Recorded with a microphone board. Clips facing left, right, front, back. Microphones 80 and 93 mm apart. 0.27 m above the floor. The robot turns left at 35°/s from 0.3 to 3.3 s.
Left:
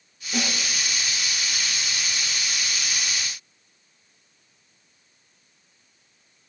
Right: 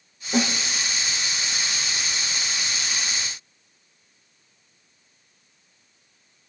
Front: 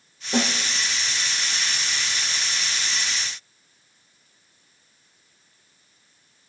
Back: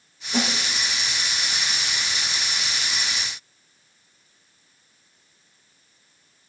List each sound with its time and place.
0.3 s a snare drum: 35° right, 3.5 m; by 0.5 s 40° right, 3.5 m